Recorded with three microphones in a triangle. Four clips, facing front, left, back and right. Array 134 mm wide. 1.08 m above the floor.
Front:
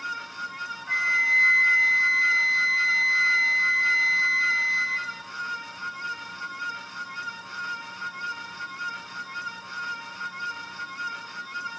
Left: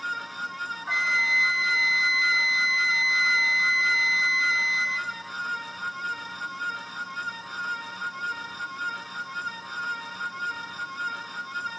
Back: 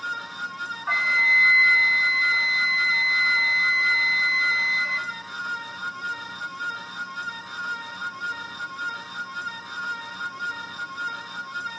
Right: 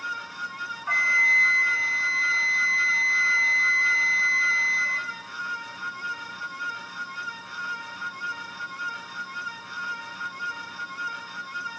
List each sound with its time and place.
0.9 s a flute: 165° right, 1.6 m